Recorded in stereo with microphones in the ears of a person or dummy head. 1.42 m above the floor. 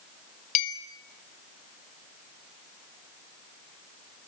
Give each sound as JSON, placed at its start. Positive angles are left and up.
{"t": 0.6, "sound": "a clink", "side_deg": 40, "distance_m": 1.8}